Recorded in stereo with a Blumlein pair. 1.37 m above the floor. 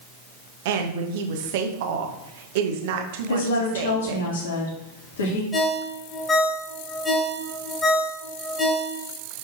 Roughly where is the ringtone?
Ahead.